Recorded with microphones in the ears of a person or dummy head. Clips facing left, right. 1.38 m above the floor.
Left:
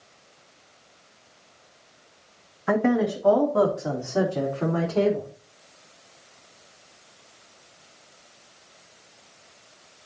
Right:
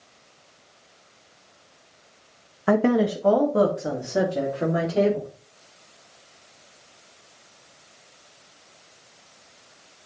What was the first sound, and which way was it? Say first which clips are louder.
A woman speaking: right 2 dB; 45° right (ahead or behind).